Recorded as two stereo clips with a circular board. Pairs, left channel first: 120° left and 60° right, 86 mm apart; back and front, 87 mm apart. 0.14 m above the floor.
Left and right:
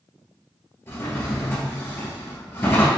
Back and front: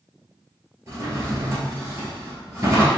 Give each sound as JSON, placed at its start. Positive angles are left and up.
{"t": 0.9, "sound": "a drawer", "azimuth_deg": 55, "distance_m": 1.6}